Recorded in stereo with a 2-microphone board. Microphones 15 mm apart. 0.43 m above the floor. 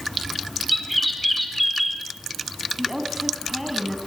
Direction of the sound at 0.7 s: Centre (ahead or behind).